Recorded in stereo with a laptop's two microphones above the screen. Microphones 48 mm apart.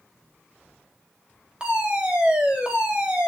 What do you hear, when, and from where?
1.6 s a fire alarm: 20° right (ahead or behind), 4.5 m